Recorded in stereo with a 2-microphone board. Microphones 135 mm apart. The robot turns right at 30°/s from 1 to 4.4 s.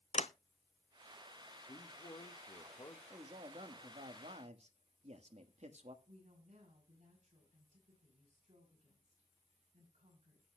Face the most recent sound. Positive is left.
turn(degrees=-60)  # may be behind; listen again after turning